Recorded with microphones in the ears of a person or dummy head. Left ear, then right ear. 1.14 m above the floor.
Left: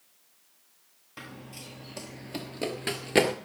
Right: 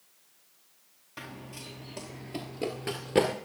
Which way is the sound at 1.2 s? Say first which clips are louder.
Right 1 dB; centre (ahead or behind).